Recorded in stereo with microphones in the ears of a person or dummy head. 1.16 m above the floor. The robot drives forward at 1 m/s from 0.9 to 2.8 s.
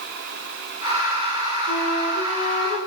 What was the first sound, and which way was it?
A flute, 80° left.